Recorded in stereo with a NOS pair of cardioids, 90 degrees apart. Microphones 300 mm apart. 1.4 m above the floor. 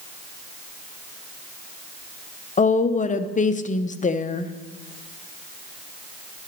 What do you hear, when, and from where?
2.6 s a woman speaking: 25° left, 0.8 m